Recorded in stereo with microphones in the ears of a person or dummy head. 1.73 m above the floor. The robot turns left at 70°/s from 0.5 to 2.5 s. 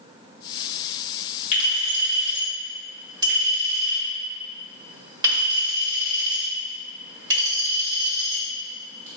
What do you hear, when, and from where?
1.5 s a clink: 45° left (ahead or behind), 1.9 m; by 9.1 s 20° right (ahead or behind), 1.9 m